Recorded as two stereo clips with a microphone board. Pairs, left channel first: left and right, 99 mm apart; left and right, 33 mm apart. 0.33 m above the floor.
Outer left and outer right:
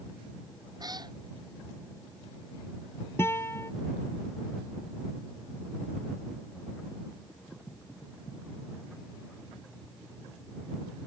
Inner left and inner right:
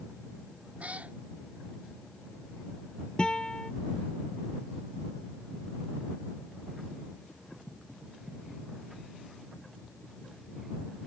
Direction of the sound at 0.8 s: 45° right (ahead or behind).